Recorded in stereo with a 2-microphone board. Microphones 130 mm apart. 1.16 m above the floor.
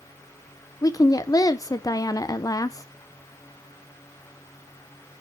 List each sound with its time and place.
0.8 s a woman speaking: 25° left (ahead or behind), 0.5 m